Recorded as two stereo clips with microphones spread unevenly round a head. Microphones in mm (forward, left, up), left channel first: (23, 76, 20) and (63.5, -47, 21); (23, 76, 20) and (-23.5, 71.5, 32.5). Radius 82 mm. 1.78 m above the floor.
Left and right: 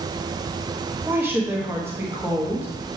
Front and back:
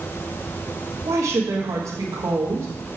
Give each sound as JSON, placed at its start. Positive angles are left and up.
{"t": 1.1, "sound": "a woman speaking", "azimuth_deg": -150, "distance_m": 1.0}